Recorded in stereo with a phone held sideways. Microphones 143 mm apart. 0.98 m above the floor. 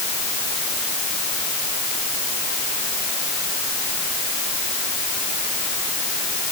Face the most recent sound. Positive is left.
No sound to turn to.